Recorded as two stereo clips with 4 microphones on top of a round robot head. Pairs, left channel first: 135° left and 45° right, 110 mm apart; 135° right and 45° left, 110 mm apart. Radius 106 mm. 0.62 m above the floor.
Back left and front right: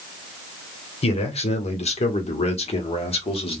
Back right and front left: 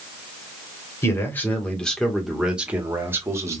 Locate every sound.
1.0 s a man speaking: 160° left, 1.7 m; by 3.6 s 105° left, 1.6 m